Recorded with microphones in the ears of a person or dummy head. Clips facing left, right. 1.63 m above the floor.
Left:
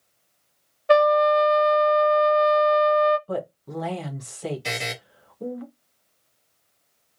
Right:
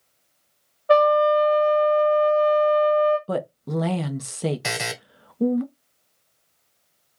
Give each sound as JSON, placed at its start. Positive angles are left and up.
{"t": 0.9, "sound": "a trumpet", "side_deg": 25, "distance_m": 1.2}
{"t": 3.3, "sound": "a woman speaking", "side_deg": -55, "distance_m": 1.1}
{"t": 4.6, "sound": "a buzzer", "side_deg": -80, "distance_m": 1.4}